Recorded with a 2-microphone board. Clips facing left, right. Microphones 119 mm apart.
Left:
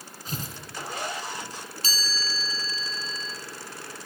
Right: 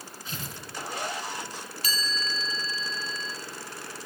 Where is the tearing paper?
40° left (ahead or behind), 2.5 m.